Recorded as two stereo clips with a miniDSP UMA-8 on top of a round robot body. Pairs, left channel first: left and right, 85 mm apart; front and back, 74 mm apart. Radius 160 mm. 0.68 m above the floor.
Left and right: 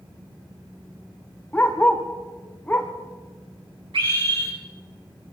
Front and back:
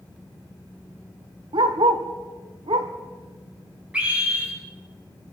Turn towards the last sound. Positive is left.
turn(degrees=-105)